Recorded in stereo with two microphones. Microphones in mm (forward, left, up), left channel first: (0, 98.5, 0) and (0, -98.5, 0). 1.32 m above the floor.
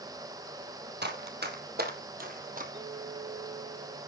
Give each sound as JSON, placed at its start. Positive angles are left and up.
{"t": 1.0, "sound": "running footsteps", "side_deg": -55, "distance_m": 2.5}
{"t": 2.7, "sound": "a clink", "side_deg": -65, "distance_m": 6.0}